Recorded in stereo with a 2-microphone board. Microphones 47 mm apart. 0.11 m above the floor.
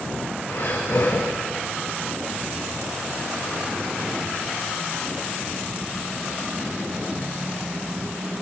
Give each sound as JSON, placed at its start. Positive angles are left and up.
{"t": 0.5, "sound": "breathing", "side_deg": 65, "distance_m": 6.0}